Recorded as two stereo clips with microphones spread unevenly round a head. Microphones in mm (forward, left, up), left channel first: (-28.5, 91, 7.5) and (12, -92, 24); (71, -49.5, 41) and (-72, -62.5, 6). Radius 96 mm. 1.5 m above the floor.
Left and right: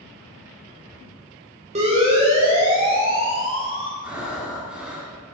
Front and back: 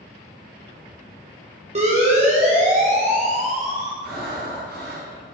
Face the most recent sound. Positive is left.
turn(degrees=-160)